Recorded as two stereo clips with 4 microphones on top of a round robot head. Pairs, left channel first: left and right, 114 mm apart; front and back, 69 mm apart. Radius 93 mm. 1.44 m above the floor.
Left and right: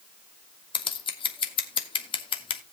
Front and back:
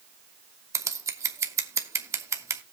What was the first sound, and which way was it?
Scissors, 135° left.